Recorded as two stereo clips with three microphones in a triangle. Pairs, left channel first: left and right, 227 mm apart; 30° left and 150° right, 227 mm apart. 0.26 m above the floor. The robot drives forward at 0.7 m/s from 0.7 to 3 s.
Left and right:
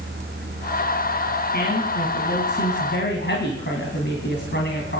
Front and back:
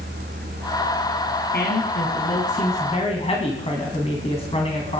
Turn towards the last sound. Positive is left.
turn(degrees=85)